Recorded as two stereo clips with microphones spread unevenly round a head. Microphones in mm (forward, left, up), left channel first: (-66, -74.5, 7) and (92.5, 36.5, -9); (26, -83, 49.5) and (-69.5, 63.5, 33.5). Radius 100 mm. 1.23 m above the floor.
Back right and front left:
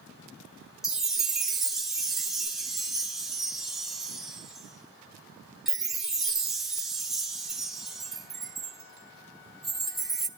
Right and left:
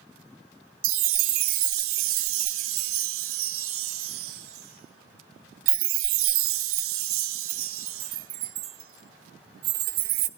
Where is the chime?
125° left, 0.6 m.